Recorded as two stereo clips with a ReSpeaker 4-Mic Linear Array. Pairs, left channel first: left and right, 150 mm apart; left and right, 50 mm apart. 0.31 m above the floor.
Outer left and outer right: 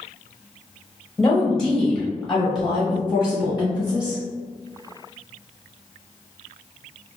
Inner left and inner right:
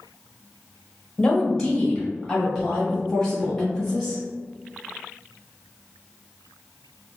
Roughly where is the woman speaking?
Centre.